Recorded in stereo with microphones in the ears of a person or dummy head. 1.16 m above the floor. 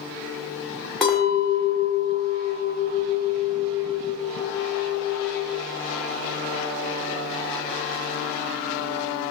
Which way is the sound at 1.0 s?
Centre (ahead or behind).